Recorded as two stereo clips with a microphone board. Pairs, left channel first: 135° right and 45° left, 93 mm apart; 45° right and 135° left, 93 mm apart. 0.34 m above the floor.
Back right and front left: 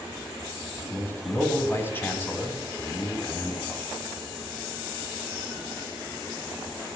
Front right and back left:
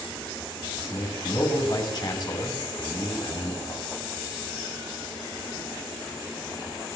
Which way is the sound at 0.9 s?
75° right.